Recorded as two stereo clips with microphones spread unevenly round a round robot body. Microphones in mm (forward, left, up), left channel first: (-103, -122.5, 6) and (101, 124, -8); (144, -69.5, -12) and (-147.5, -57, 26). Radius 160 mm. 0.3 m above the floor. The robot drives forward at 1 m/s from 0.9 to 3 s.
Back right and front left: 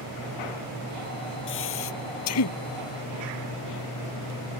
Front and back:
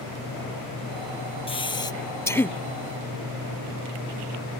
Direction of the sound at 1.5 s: 75° right.